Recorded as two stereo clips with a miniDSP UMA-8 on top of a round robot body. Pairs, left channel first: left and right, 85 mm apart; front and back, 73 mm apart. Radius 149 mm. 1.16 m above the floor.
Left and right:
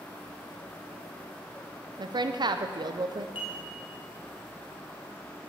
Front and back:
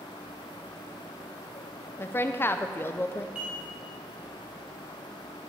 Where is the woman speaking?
60° right, 0.6 m.